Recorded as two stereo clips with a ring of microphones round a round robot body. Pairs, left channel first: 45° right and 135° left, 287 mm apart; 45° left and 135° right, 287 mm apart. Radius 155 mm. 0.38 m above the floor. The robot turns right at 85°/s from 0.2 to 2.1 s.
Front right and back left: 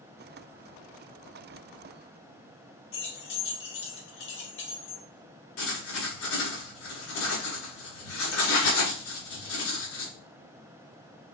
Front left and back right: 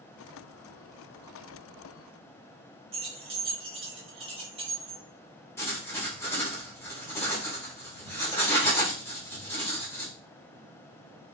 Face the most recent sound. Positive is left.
turn(degrees=-35)